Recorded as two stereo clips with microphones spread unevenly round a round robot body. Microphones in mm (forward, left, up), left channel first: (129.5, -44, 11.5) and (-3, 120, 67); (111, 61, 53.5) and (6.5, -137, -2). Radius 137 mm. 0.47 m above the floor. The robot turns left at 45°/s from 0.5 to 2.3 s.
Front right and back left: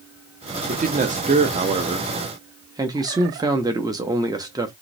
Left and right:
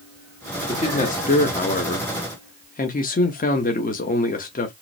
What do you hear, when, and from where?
0.7 s a man speaking: 115° left, 0.7 m; by 4.7 s 45° left, 0.7 m